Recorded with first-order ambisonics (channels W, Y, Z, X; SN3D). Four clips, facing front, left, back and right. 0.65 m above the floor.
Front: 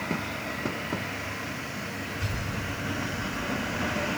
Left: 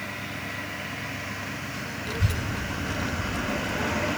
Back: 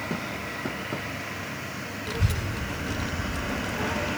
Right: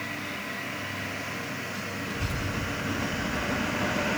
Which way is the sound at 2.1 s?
150° left.